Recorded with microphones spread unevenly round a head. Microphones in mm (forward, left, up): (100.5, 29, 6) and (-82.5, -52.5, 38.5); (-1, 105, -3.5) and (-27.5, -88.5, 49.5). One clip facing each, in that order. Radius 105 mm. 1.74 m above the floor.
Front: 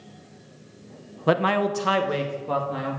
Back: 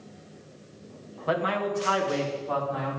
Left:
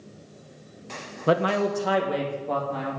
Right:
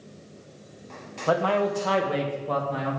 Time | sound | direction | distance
1.3 | a man speaking | 20° left | 0.8 m